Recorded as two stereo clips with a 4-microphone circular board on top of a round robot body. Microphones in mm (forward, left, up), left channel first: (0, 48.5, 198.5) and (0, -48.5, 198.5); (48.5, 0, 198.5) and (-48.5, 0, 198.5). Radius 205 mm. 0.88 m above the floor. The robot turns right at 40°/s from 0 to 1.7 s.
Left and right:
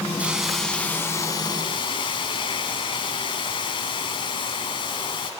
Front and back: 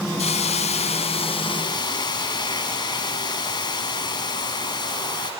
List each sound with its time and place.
0.2 s a hiss: 10° right, 1.6 m; by 5.3 s 50° left, 1.6 m